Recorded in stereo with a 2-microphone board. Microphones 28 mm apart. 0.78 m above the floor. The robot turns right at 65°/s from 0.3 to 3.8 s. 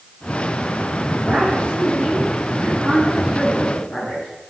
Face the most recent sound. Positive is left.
turn(degrees=35)